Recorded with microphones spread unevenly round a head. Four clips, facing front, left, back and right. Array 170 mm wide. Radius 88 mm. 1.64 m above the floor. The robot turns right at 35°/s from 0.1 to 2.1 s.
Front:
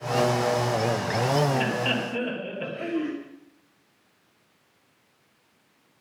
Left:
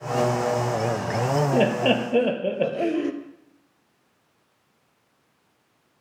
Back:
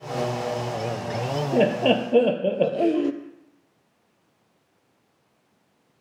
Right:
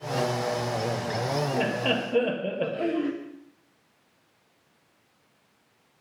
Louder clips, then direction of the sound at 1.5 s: Left 6 dB, back 7 dB; 150° left.